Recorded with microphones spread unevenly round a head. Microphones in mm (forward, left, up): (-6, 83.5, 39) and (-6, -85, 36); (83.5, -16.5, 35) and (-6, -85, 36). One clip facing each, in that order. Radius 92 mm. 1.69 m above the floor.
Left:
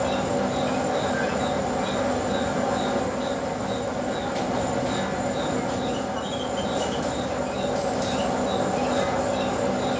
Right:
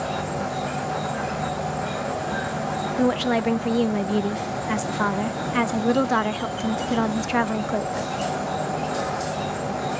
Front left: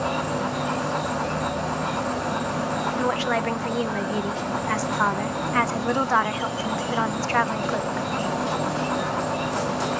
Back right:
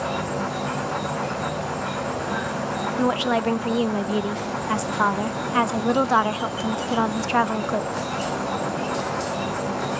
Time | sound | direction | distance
0.0 | an insect | 135° left | 7.5 m
3.0 | a woman speaking | 70° right | 0.5 m